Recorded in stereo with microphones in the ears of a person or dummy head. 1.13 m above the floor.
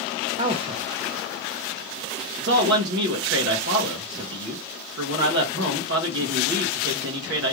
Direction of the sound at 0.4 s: 35° right (ahead or behind).